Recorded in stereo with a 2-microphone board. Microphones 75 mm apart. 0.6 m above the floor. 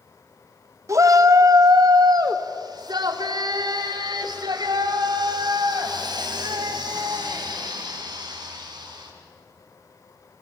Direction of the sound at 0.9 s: 40° right (ahead or behind).